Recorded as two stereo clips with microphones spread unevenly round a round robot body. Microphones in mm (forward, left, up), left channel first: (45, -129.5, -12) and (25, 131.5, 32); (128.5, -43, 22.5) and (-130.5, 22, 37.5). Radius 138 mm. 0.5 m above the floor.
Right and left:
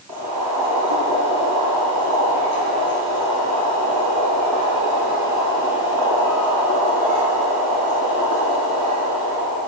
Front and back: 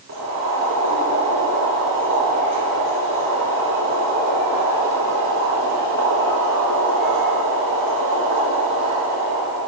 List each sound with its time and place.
0.1 s boiling: 120° left, 6 m